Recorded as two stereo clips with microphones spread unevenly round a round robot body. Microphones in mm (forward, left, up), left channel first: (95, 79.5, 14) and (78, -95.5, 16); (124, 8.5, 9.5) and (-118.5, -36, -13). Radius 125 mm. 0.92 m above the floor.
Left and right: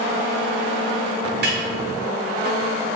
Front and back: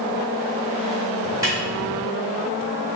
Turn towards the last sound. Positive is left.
turn(degrees=-100)